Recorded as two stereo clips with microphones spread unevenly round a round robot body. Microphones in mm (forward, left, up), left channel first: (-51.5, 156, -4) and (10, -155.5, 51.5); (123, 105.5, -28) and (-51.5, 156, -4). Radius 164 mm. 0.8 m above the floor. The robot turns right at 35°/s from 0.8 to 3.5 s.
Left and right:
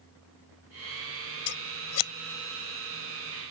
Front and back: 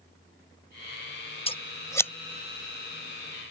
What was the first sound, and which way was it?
Scissors, 40° left.